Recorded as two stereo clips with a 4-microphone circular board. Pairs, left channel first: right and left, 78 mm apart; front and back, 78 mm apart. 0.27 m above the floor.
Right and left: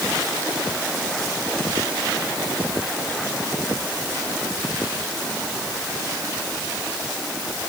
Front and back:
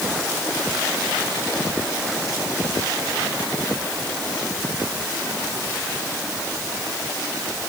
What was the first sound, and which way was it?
Only background noise.